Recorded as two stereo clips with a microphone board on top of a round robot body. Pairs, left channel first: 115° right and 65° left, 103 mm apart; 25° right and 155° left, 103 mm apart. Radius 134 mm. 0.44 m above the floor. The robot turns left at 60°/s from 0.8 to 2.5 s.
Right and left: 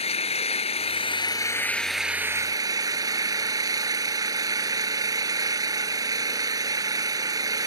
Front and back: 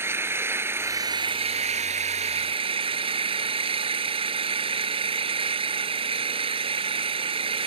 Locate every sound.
0.0 s an engine running: 135° right; by 7.7 s 125° left